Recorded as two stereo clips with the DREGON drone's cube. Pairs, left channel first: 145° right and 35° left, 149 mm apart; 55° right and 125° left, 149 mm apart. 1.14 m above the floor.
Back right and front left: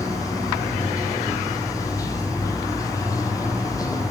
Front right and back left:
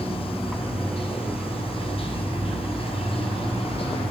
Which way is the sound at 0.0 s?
90° right.